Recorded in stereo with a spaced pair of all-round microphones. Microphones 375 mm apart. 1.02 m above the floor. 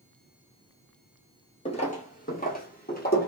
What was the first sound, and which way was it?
Footsteps, 15° left (ahead or behind).